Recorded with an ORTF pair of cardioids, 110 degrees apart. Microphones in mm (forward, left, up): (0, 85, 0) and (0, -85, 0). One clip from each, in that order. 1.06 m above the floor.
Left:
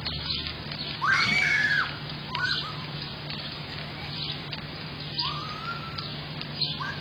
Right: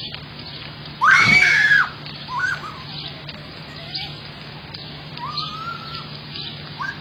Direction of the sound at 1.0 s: 50° right.